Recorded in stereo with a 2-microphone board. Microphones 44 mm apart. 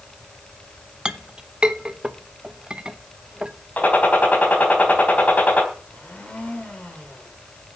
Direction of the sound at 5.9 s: 25° left (ahead or behind).